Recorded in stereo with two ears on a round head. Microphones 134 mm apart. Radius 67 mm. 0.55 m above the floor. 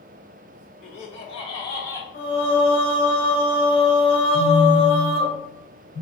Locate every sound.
0.8 s laughter: 50° left (ahead or behind), 0.9 m; by 2.0 s 20° left (ahead or behind), 1.3 m
2.1 s singing: 70° left (ahead or behind), 1.9 m
4.3 s a phone buzzing: 70° left (ahead or behind), 1.9 m